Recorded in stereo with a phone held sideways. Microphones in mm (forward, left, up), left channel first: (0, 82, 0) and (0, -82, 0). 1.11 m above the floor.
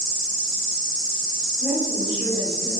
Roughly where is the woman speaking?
Centre.